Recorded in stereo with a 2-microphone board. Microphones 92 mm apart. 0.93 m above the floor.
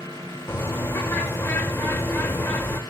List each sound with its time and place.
0.5 s a bird: 25° left (ahead or behind), 1.1 m